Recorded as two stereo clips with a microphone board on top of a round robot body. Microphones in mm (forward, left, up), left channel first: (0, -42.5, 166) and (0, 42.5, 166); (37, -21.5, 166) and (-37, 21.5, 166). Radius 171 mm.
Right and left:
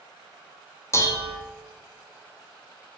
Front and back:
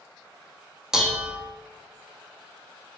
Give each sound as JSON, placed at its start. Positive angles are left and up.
{"t": 0.9, "sound": "dishes clattering", "azimuth_deg": -130, "distance_m": 0.6}